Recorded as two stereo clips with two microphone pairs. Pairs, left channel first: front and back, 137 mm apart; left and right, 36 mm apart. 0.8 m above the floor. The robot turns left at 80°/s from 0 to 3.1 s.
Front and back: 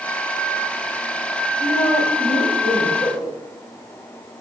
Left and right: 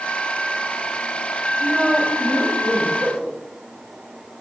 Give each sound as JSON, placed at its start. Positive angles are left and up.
{"t": 1.6, "sound": "a woman speaking", "azimuth_deg": 110, "distance_m": 5.5}
{"t": 3.0, "sound": "a whoosh", "azimuth_deg": -45, "distance_m": 2.5}